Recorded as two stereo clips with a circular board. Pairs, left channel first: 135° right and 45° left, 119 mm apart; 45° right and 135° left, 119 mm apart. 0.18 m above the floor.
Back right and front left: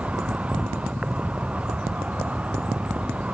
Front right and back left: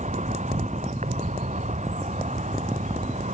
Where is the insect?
125° left.